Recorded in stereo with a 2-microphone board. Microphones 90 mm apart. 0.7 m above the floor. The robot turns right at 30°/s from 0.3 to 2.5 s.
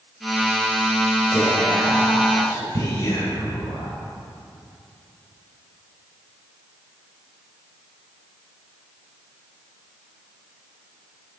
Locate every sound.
1.3 s whispering: 5° left, 2.5 m; by 3.9 s 40° left, 2.5 m